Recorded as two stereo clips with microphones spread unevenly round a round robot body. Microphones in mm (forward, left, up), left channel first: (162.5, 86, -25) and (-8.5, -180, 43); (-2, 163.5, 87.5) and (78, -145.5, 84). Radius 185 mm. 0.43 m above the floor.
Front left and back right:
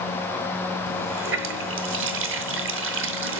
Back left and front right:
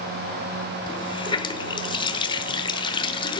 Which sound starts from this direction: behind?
A running tap, at 0.9 s.